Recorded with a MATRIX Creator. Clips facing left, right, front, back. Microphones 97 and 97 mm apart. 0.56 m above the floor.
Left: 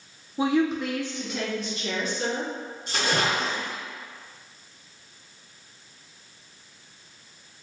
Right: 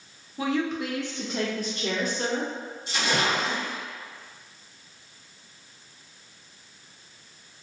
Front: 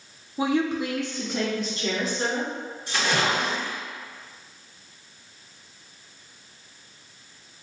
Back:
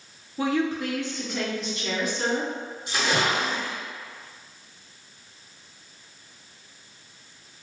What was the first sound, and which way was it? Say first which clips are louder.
A woman speaking: left 4 dB, front 1 dB; 55° left.